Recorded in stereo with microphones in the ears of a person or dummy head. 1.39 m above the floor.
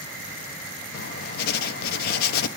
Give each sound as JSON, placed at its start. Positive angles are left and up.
{"t": 0.9, "sound": "writing", "side_deg": 60, "distance_m": 0.6}